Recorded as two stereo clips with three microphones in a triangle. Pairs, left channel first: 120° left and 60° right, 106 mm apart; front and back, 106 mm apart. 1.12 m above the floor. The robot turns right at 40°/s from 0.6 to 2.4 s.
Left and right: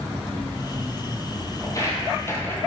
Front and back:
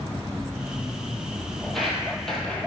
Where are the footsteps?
85° left, 1.4 m; by 2.7 s 65° left, 1.3 m.